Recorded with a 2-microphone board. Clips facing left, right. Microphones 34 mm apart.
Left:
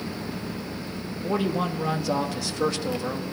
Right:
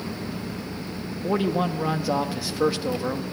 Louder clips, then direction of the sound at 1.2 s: Right 2 dB; 10° right (ahead or behind).